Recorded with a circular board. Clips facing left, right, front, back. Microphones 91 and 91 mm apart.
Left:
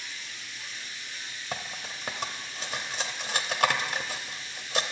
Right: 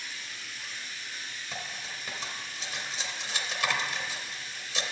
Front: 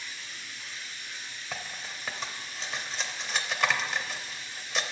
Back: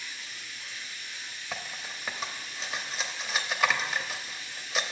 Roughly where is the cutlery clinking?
Left.